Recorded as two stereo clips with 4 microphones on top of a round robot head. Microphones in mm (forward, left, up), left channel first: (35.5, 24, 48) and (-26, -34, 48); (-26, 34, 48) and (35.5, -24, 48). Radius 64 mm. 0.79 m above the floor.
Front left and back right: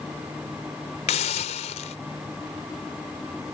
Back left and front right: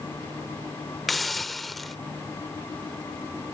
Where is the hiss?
50° left.